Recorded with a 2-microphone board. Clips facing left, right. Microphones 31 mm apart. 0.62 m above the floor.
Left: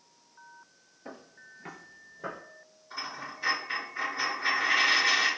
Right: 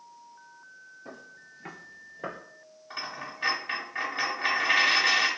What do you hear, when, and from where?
1.1 s footsteps: 30° left (ahead or behind), 0.7 m; by 2.4 s 35° right (ahead or behind), 0.7 m
2.9 s a dropped coin: 70° right (ahead or behind), 1.2 m